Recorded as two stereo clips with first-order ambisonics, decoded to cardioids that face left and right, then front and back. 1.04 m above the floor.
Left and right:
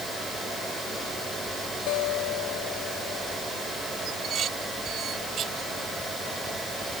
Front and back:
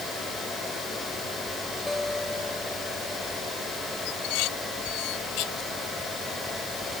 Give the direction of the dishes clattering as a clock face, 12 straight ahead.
1 o'clock.